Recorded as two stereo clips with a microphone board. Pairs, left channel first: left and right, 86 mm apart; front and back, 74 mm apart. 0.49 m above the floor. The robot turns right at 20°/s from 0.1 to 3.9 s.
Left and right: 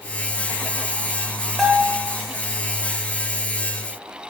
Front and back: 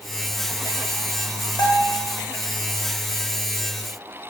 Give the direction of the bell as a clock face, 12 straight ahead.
12 o'clock.